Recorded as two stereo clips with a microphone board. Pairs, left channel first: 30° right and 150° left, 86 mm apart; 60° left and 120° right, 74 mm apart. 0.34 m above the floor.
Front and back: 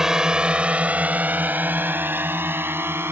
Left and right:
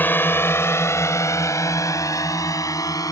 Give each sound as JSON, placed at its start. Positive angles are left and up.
{"t": 0.0, "sound": "a drone", "azimuth_deg": 75}